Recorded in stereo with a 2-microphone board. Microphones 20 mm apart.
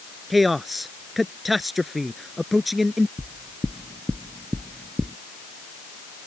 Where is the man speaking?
5° right (ahead or behind).